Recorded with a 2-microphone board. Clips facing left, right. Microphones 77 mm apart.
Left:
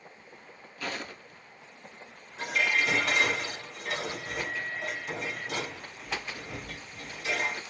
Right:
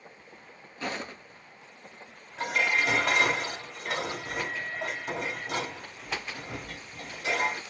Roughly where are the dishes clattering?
Right.